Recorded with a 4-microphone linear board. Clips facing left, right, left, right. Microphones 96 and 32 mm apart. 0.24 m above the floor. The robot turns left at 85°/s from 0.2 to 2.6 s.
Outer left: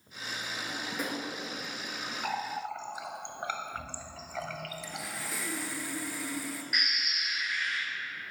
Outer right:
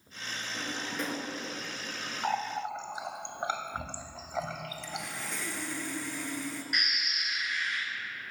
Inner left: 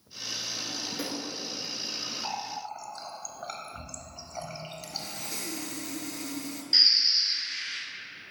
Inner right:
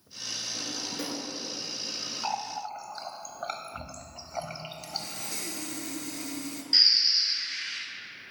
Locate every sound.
0.5 s a drawer: 35° right (ahead or behind), 1.5 m; by 1.3 s 25° left (ahead or behind), 1.5 m
2.2 s a running tap: 20° right (ahead or behind), 0.7 m
4.8 s sawing: 5° left (ahead or behind), 0.7 m
6.7 s a bird: 5° left (ahead or behind), 2 m